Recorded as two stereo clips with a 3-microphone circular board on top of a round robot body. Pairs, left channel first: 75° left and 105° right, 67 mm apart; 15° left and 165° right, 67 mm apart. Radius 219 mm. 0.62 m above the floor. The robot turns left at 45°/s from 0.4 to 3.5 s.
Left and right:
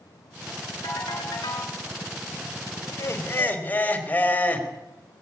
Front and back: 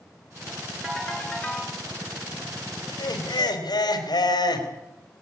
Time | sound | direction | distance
0.8 | a ringtone | 110° left | 5.5 m
2.9 | laughter | 35° left | 3.5 m